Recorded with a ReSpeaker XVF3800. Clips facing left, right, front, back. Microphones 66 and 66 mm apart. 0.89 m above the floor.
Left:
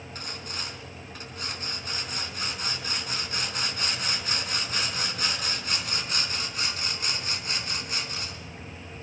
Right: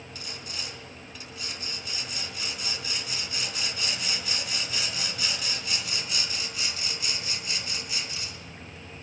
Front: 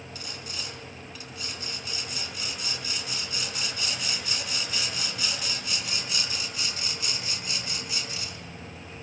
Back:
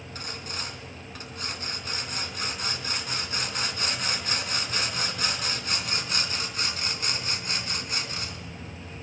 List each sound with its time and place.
0.1 s sawing: 135° left, 4 m